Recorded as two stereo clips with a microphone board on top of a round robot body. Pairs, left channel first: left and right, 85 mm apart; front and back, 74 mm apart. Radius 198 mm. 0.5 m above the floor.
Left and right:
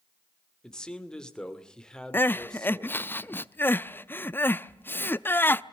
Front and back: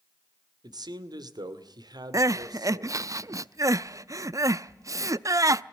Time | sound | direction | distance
0.6 | a man speaking | 170° left | 2.5 m
2.1 | crying | 150° left | 0.8 m